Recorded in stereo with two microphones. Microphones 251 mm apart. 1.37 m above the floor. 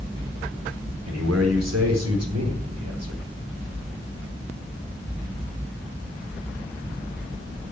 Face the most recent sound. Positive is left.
turn(degrees=-80)